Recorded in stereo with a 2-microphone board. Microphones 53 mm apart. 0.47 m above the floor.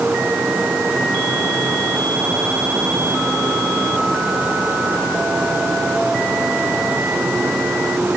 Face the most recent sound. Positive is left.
No sound to turn to.